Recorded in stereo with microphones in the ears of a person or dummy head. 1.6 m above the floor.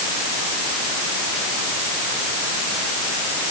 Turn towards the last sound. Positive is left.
No sound to turn to.